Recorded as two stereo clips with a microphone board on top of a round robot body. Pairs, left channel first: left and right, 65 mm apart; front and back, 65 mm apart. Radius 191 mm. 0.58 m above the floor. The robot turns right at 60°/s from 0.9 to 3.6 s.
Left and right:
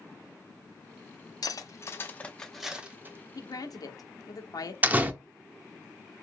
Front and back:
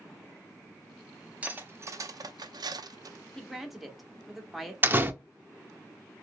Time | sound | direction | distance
1.4 | cutlery clinking | 110° left | 0.6 m
3.4 | a woman speaking | 80° left | 1.0 m
4.8 | a door slam | 140° right | 0.8 m